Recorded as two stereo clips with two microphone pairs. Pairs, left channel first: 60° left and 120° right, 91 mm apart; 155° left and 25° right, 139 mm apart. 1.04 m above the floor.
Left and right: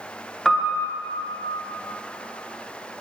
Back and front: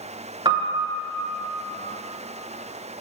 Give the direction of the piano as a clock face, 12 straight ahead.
1 o'clock.